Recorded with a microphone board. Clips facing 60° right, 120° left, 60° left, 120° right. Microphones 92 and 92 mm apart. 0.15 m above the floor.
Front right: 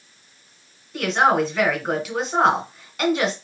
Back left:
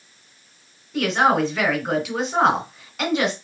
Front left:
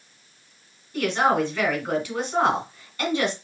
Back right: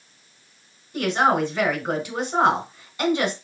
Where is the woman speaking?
150° right, 1.7 m.